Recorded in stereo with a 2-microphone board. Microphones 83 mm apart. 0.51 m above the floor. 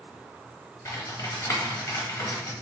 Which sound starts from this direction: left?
Typing on a keyboard, at 0.8 s.